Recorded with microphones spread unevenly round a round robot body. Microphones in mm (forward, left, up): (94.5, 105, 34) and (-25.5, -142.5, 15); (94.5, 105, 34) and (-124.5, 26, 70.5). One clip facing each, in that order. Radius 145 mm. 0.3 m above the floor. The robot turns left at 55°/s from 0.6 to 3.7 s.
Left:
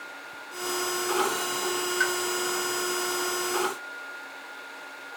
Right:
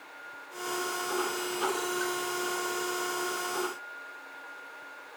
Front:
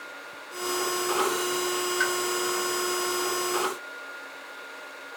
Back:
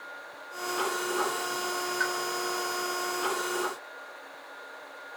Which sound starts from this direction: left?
A pop, at 2.0 s.